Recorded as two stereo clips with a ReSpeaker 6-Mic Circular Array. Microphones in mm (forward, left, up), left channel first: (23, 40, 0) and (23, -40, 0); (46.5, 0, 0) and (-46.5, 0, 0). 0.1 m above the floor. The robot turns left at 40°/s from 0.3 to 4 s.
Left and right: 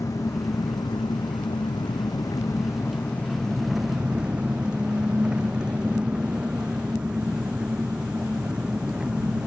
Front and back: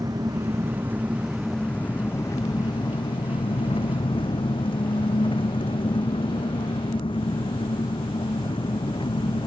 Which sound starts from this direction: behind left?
An engine running, at 0.0 s.